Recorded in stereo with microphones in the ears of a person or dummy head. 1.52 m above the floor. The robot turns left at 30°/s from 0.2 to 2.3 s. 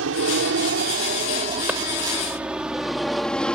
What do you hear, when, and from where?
0.0 s an aircraft: 75° right (ahead or behind); by 3.5 s 5° left (ahead or behind)
1.7 s a clap: 10° right (ahead or behind)